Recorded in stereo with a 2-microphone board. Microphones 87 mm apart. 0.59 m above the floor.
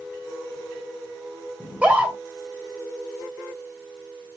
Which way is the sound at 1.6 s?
15° right (ahead or behind).